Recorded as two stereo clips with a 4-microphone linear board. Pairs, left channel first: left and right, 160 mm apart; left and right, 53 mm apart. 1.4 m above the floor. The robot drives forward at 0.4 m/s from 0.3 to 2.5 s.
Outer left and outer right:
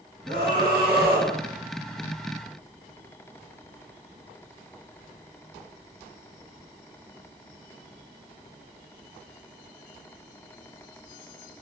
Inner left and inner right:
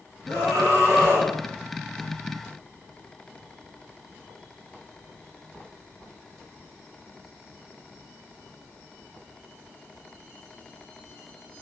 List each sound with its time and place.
0.3 s a scream: 90° right, 9.5 m; by 1.3 s 85° right, 9.5 m